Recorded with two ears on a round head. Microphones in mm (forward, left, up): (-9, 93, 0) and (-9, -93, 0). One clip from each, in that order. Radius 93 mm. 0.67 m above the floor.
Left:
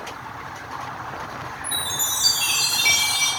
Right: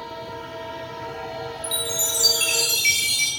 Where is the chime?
60° right (ahead or behind), 1.2 m.